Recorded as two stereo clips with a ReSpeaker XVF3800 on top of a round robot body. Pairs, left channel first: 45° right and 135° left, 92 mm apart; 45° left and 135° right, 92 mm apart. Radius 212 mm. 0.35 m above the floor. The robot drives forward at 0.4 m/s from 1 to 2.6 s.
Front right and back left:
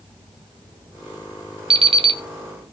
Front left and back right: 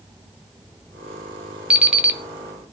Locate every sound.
1.7 s an alarm clock: 150° left, 1.5 m